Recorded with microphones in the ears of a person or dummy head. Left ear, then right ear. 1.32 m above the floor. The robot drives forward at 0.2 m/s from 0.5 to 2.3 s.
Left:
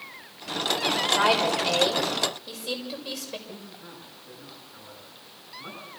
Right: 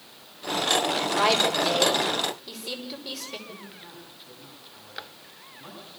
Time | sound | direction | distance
0.9 | a woman speaking | 10° right (ahead or behind) | 5 m
3.5 | a man speaking | 5° left (ahead or behind) | 8.5 m